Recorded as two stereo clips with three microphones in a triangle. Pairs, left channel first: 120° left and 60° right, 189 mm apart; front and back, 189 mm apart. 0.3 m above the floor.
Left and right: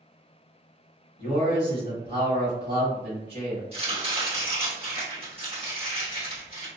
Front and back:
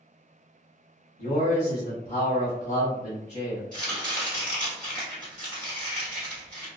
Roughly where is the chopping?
Right.